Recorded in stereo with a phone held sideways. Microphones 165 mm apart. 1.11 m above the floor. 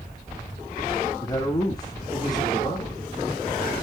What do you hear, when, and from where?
1.2 s a man speaking: 25° left (ahead or behind), 2.5 m